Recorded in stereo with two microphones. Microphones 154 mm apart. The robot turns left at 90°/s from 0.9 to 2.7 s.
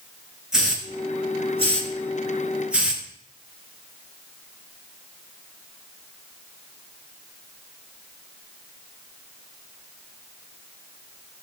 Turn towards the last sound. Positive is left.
turn(degrees=-10)  # may be behind; listen again after turning